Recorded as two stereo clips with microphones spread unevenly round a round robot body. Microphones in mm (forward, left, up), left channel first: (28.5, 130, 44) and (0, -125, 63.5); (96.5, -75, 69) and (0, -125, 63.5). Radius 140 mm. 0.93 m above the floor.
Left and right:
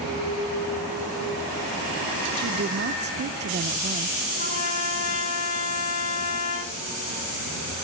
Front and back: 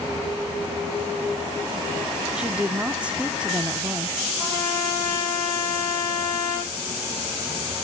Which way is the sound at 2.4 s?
80° right.